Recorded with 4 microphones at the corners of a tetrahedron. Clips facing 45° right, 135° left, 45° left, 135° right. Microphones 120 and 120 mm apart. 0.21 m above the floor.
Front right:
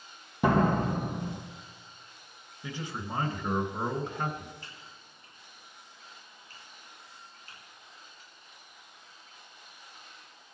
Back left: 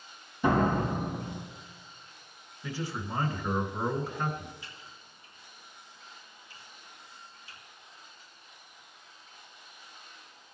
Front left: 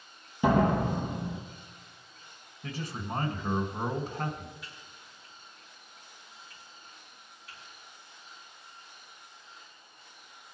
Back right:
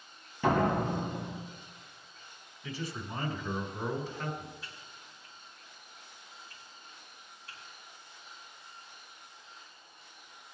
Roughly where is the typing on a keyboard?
Right.